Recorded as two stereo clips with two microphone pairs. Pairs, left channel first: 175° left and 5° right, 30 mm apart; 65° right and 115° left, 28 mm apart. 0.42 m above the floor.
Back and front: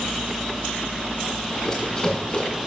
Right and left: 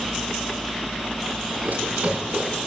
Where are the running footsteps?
100° left, 8.5 m.